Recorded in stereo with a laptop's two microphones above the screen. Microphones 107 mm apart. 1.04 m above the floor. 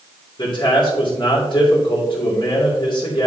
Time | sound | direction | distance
0.4 | a man speaking | 45° left (ahead or behind) | 3 m